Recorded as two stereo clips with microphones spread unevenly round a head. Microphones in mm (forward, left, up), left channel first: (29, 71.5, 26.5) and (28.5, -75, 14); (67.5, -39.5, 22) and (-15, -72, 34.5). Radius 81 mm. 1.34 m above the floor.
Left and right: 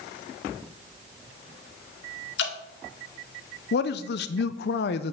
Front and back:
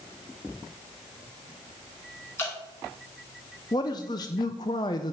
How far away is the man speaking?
About 0.5 m.